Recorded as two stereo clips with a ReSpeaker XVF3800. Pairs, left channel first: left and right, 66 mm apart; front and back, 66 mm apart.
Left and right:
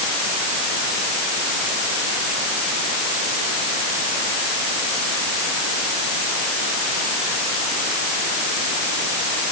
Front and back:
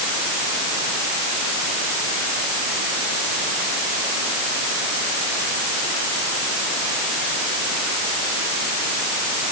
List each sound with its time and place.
Only background noise.